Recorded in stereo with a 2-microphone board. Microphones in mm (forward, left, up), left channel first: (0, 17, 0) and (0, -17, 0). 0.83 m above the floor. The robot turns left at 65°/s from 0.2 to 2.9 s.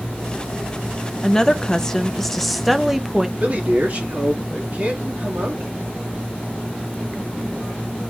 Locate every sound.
1.2 s a woman speaking: 20° left (ahead or behind), 0.5 m; by 3.3 s 5° right (ahead or behind), 0.5 m
3.4 s a man speaking: 45° right (ahead or behind), 1.9 m